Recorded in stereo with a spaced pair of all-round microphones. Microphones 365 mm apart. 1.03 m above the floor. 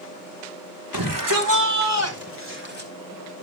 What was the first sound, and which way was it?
A shout, 65° right (ahead or behind).